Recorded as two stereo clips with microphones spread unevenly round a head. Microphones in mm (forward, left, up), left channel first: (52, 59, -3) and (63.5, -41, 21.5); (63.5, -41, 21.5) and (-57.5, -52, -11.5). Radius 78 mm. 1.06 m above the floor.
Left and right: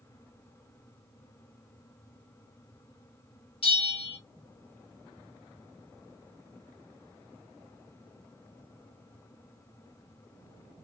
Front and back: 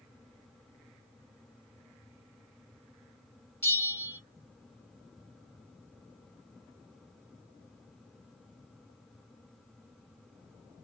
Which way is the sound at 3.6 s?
85° left.